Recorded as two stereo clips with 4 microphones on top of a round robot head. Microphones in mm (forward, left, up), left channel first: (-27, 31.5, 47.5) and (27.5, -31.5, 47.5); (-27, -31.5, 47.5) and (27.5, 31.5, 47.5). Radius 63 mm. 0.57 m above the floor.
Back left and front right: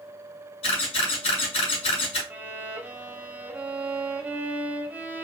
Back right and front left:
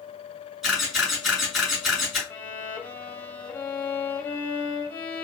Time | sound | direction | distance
0.6 | a camera shutter | 135° left | 3 m
2.3 | a violin | 100° right | 1.3 m